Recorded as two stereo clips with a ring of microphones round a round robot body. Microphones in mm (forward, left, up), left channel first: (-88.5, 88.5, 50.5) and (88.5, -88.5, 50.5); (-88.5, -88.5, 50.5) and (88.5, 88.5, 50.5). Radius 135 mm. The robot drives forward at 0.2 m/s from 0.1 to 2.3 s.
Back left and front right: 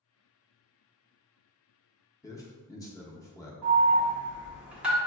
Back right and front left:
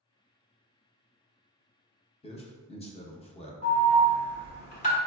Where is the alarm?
125° right, 1.4 m.